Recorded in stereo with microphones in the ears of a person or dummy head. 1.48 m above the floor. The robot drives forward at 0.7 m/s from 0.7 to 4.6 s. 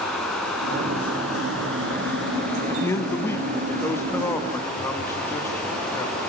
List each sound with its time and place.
0.0 s running water: centre (ahead or behind), 2 m
2.7 s a man speaking: 10° left (ahead or behind), 1.4 m; by 6.2 s 5° left (ahead or behind), 2.5 m